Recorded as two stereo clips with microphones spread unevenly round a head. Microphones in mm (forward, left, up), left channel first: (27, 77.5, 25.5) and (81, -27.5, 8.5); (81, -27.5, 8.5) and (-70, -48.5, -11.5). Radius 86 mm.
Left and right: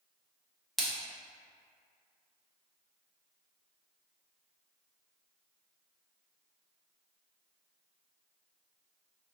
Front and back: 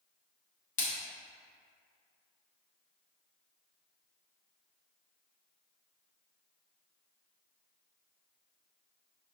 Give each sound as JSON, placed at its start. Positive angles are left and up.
{"t": 0.8, "sound": "a splash", "azimuth_deg": 35, "distance_m": 1.1}